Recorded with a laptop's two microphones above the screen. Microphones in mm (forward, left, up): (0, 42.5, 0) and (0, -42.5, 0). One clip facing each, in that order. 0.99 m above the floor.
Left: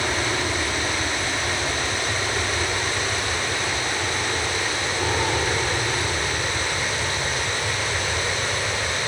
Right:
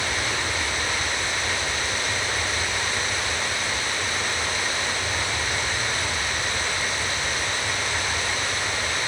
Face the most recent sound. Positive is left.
turn(degrees=70)  # may be behind; listen again after turning